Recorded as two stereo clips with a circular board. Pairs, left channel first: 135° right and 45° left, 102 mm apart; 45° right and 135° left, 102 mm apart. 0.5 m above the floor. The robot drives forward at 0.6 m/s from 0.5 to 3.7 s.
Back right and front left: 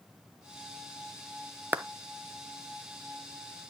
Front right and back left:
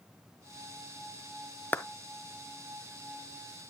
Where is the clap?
5° right, 0.6 m.